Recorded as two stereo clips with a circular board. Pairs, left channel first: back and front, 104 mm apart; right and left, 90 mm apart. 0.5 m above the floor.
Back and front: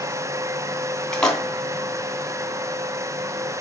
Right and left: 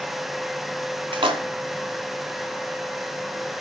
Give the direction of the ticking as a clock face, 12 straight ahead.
No ticking in this recording.